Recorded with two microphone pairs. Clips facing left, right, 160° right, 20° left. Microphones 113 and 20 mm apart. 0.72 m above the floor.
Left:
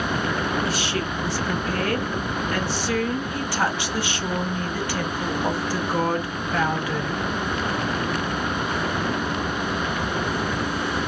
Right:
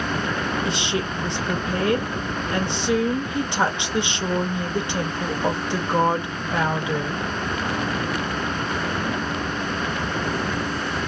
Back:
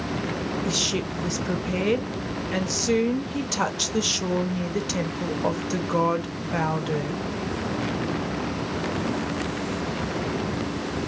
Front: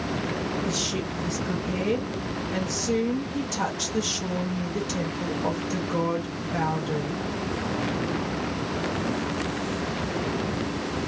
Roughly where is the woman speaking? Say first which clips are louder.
Right 1 dB, back 3 dB; behind right.